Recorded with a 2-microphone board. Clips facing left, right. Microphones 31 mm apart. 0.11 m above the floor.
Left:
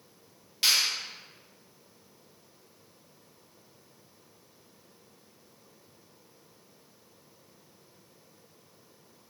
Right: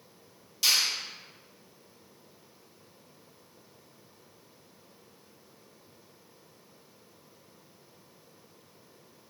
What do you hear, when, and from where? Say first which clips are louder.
0.6 s a finger snap: left 1 dB; 40° left (ahead or behind), 1.9 m